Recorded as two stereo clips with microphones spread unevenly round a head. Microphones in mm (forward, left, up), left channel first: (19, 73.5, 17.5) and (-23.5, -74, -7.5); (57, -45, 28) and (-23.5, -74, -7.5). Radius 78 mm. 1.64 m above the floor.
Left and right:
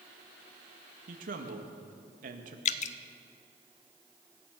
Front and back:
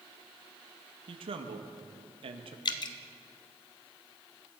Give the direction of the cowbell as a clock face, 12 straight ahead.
No cowbell in this recording.